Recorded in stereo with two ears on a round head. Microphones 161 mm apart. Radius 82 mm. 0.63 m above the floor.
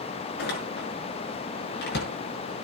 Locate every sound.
0.4 s a door slam: 60° left (ahead or behind), 6.5 m